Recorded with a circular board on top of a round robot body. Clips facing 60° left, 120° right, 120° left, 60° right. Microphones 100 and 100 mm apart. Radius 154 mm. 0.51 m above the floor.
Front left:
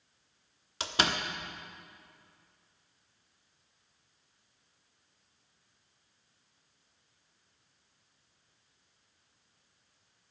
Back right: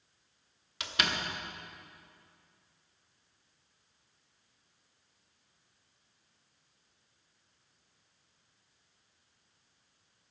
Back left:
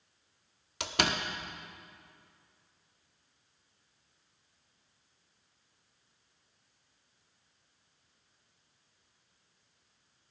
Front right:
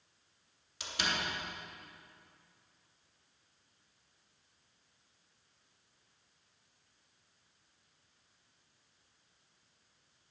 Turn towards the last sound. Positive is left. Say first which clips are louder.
# front left 3 dB, back left 6 dB
turn(degrees=115)